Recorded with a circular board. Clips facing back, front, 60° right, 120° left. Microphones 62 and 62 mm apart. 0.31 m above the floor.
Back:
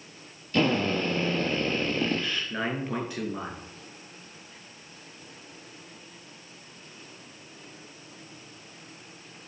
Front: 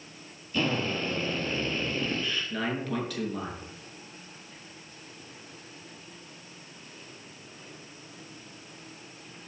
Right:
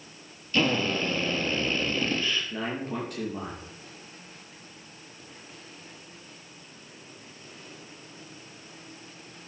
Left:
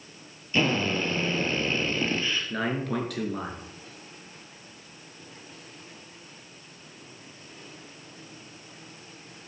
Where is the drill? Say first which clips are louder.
Back 4 dB, even; 170° right, 3.5 m.